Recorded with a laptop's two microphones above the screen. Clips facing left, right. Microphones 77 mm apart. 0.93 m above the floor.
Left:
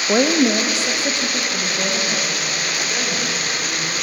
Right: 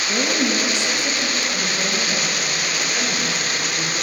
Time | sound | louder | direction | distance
0.1 | a woman speaking | left 7 dB | 55° left (ahead or behind) | 0.7 m